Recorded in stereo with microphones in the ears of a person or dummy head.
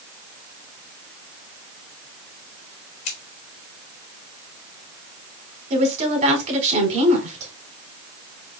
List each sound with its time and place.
3.0 s scissors: 40° left (ahead or behind), 3 m
5.7 s a woman speaking: 35° right (ahead or behind), 3.5 m